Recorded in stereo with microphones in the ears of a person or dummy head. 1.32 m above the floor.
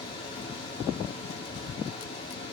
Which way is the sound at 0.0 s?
25° left (ahead or behind).